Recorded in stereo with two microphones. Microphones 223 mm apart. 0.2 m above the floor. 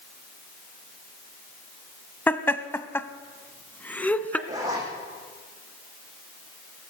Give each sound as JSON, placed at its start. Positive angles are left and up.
{"t": 2.3, "sound": "laughter", "side_deg": 10, "distance_m": 1.0}
{"t": 4.5, "sound": "a zipper", "side_deg": -15, "distance_m": 10.0}